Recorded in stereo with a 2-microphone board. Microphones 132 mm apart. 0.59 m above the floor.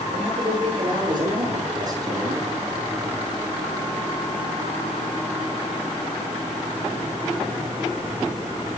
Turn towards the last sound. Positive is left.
turn(degrees=-25)  # may be behind; listen again after turning